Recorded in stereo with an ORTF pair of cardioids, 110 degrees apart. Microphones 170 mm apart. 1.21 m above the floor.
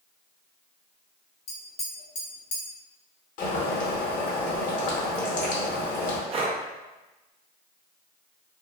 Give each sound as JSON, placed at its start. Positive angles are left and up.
{"t": 1.5, "sound": "tapping", "azimuth_deg": 45, "distance_m": 1.0}
{"t": 3.4, "sound": "boiling", "azimuth_deg": 50, "distance_m": 0.9}
{"t": 6.3, "sound": "breathing", "azimuth_deg": -35, "distance_m": 0.5}